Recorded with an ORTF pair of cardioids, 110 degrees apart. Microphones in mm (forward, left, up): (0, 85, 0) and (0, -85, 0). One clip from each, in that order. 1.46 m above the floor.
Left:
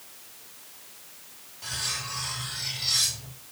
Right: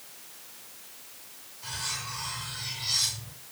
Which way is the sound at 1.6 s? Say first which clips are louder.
Left 3 dB; 55° left.